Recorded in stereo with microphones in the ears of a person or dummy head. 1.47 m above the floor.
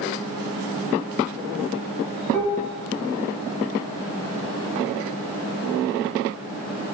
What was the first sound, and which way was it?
Dishes clattering, 10° left (ahead or behind).